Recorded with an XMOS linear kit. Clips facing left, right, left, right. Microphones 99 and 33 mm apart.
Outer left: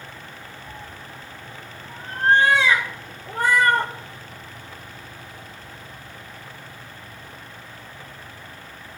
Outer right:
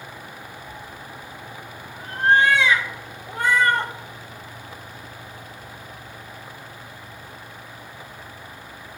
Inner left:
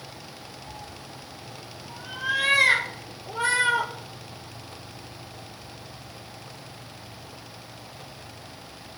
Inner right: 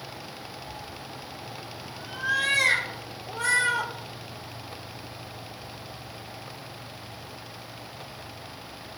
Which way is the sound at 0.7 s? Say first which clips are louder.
Outer right 1 dB, inner right 2 dB; 35° left (ahead or behind).